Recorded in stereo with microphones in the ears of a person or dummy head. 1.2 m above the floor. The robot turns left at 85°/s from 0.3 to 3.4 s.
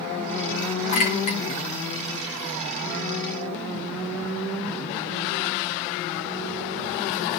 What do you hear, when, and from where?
0.9 s a clink: 30° left (ahead or behind), 3.5 m; by 1.4 s 70° left (ahead or behind), 3.5 m